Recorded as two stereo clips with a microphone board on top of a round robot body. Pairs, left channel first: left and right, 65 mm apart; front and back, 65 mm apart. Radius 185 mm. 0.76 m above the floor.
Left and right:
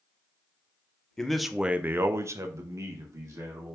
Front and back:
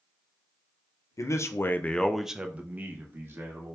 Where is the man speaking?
10° left, 0.7 m; by 3.8 s 130° right, 1.2 m.